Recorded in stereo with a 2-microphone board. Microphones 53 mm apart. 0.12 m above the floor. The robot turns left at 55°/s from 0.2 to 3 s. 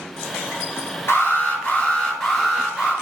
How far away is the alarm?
About 1.2 m.